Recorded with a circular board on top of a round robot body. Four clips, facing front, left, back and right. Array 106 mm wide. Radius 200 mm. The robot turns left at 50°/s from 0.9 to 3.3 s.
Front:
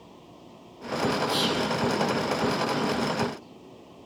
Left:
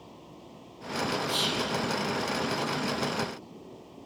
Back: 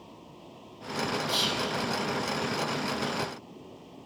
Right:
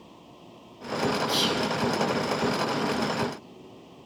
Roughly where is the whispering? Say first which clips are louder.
Right 4 dB, front 5 dB; right.